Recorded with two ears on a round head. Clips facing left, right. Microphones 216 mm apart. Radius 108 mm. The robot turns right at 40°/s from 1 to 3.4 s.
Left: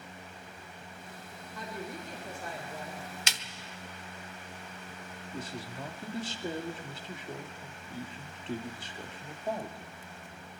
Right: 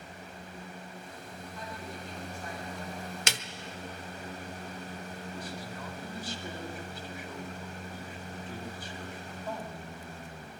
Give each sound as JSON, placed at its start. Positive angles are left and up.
{"t": 1.6, "sound": "a woman speaking", "azimuth_deg": 115, "distance_m": 4.0}
{"t": 3.3, "sound": "a snare drum", "side_deg": -45, "distance_m": 1.1}
{"t": 5.3, "sound": "a man speaking", "side_deg": 25, "distance_m": 2.5}